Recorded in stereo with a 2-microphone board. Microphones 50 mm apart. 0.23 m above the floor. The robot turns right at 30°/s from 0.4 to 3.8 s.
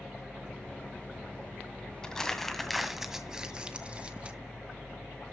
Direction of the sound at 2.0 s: 15° left (ahead or behind).